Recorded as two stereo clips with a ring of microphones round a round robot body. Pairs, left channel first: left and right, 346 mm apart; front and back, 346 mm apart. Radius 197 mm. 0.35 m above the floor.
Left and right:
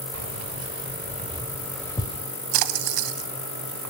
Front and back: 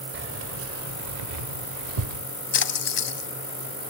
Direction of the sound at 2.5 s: 60° right.